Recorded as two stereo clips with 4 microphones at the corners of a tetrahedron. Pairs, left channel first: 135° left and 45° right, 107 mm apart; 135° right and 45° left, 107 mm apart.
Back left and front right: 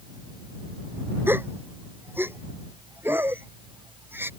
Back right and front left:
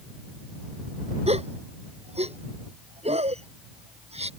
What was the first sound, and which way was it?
A gasp, 25° left.